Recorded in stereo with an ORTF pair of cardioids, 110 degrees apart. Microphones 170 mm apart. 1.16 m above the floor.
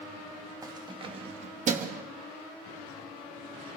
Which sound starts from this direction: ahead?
Keys jangling, at 0.6 s.